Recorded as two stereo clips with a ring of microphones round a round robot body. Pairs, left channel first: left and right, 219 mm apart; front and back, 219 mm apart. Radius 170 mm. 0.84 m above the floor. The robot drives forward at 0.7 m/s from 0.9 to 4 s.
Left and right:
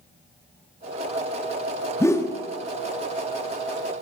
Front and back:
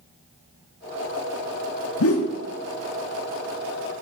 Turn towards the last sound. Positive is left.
turn(degrees=130)